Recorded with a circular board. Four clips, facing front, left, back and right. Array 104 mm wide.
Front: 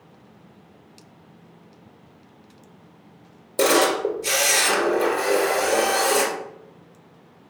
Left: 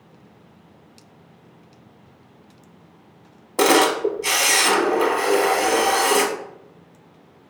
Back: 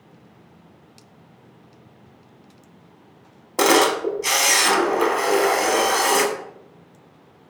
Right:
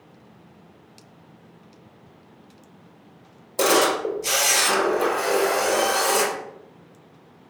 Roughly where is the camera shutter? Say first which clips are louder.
Left 3 dB, back 2 dB; behind left.